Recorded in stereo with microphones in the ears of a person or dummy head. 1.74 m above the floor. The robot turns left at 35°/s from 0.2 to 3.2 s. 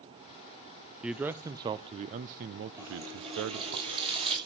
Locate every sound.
1.0 s a man speaking: 5° right, 0.5 m; by 3.8 s 80° right, 0.5 m
2.8 s a running tap: 15° right (ahead or behind), 6 m; by 4.4 s 30° right (ahead or behind), 6 m